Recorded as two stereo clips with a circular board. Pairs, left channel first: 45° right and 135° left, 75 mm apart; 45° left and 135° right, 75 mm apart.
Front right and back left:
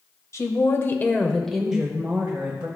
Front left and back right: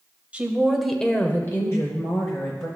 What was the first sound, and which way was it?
A woman speaking, 70° right.